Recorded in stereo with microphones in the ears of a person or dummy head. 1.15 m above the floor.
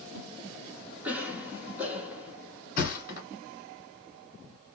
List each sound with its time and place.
1.0 s a cough: 10° right (ahead or behind), 1.0 m
2.8 s a thud: 50° left (ahead or behind), 1.4 m